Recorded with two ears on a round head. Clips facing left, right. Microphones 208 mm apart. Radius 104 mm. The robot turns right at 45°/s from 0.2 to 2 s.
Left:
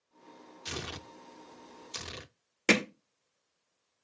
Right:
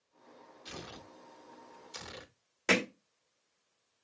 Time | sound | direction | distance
0.7 | tearing paper | 65° left (ahead or behind) | 0.5 m
2.7 | hammering | 50° left (ahead or behind) | 1.9 m